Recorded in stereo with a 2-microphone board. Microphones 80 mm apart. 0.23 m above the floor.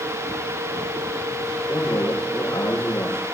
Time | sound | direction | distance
1.7 | a man speaking | 80° left | 8 m